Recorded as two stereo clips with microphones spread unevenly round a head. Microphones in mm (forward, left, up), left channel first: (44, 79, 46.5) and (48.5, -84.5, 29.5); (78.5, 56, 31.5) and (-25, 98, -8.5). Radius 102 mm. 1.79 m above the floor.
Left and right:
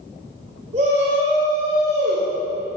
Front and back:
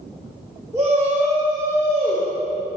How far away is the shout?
About 4.5 m.